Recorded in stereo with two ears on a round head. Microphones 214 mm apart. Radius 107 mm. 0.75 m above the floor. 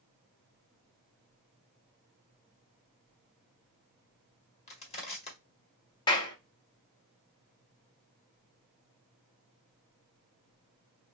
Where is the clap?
20° left (ahead or behind), 1.0 m.